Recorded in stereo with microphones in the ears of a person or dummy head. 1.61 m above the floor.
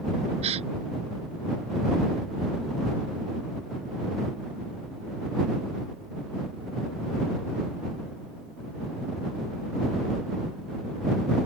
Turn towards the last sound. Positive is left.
turn(degrees=-30)  # may be behind; listen again after turning